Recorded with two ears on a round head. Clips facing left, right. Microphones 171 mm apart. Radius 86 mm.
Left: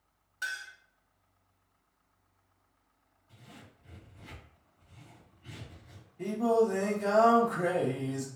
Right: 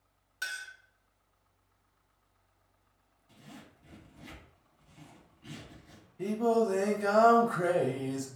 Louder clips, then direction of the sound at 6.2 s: Left 1 dB; 5° right (ahead or behind).